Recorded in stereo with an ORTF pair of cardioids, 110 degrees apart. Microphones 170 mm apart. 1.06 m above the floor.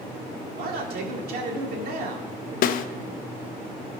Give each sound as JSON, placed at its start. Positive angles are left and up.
{"t": 0.6, "sound": "a man speaking", "azimuth_deg": -70, "distance_m": 2.0}
{"t": 2.6, "sound": "a snare drum", "azimuth_deg": 60, "distance_m": 0.6}